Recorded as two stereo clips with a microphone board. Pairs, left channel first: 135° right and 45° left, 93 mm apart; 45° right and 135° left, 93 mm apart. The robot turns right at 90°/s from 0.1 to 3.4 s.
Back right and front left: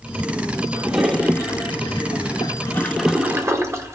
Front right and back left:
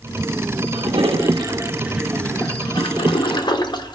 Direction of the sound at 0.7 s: 105° left.